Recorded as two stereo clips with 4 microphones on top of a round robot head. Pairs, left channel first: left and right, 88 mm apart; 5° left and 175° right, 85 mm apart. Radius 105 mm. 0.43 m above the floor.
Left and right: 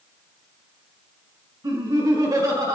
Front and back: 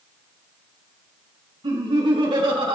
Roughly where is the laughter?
Behind right.